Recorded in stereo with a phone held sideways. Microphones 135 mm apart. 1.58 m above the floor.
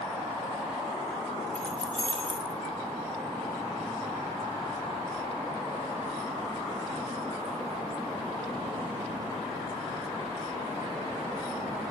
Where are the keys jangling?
10° left (ahead or behind), 5 m; by 2.5 s 15° left (ahead or behind), 6.5 m.